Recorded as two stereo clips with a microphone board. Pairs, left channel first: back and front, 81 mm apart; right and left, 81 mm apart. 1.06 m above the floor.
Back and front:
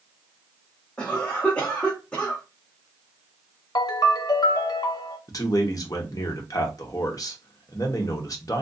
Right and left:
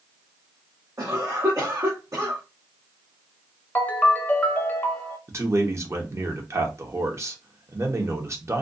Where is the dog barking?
No dog barking in this recording.